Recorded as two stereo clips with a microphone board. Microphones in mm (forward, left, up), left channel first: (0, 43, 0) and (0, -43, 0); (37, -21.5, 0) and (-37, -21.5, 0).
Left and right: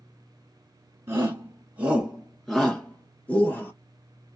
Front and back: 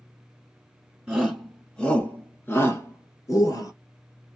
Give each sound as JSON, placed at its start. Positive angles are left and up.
{"t": 1.1, "sound": "a shout", "azimuth_deg": -105, "distance_m": 1.2}